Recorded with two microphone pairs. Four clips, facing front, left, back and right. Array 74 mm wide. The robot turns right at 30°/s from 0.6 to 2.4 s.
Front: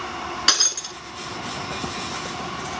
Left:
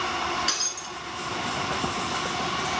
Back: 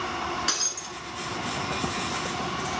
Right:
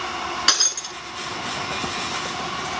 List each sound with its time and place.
0.5 s breaking glass: 30° right, 0.8 m; by 1.0 s 20° right, 0.8 m